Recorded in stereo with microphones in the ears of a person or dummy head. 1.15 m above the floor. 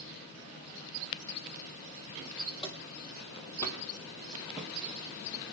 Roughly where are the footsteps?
Left.